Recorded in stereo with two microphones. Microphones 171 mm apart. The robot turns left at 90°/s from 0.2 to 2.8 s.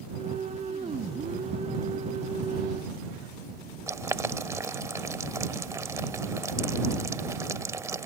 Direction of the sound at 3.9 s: 15° right (ahead or behind).